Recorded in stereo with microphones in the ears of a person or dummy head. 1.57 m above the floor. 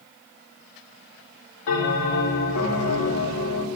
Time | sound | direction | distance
1.7 | a bell | 65° left (ahead or behind) | 3 m